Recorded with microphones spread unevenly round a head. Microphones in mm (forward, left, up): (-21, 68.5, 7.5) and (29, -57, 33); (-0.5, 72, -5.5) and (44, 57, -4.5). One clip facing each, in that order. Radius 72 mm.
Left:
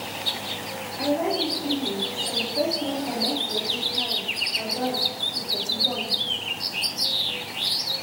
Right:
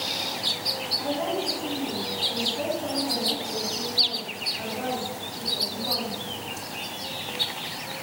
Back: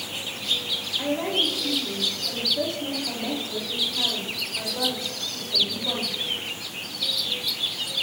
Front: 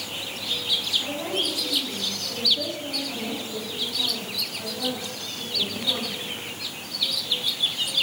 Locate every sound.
1.0 s a woman speaking: 130° left, 5 m